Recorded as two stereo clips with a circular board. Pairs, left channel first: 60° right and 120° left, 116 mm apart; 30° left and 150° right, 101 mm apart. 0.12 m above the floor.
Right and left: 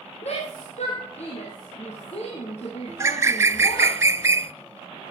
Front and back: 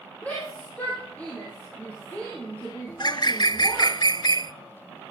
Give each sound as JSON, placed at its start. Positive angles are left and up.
{"t": 0.2, "sound": "a shout", "azimuth_deg": -45, "distance_m": 3.5}
{"t": 2.9, "sound": "a bird", "azimuth_deg": 60, "distance_m": 0.5}